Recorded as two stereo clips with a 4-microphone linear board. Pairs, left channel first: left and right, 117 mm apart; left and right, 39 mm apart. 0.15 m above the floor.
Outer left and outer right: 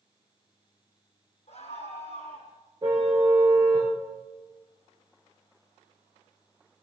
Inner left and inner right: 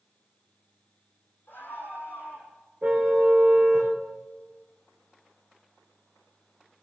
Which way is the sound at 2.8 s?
40° right (ahead or behind).